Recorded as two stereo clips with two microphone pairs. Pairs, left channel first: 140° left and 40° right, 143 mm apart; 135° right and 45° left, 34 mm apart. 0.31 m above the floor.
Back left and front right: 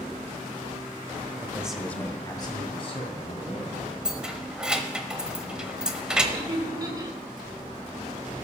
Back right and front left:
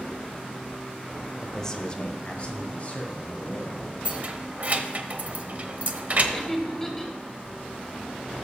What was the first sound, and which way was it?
A man speaking, 70° right.